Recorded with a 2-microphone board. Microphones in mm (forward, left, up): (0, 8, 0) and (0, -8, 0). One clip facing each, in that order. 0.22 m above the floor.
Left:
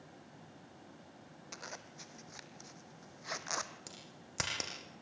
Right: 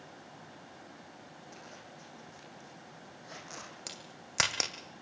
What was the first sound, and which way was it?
A zipper, 40° left (ahead or behind).